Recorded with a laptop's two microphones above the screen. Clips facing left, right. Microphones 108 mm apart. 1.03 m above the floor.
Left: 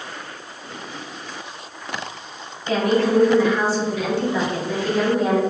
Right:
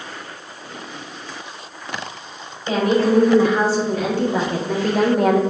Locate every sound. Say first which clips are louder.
2.7 s a woman speaking: right 2 dB; 35° right (ahead or behind), 3 m; by 5.4 s 65° right (ahead or behind), 1.0 m